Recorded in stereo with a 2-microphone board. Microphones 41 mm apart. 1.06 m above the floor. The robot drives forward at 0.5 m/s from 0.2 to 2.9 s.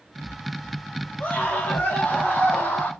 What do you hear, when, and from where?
1.2 s a scream: 50° left (ahead or behind), 4 m; by 2.9 s 60° left (ahead or behind), 3.5 m